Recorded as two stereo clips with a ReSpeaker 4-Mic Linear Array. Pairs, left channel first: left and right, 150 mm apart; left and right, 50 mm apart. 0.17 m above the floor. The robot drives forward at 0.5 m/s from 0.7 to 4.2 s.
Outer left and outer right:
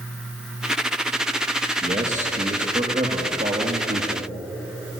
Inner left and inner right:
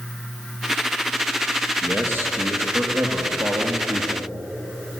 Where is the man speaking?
50° right (ahead or behind), 4.5 m; by 4.3 s 65° right (ahead or behind), 4 m.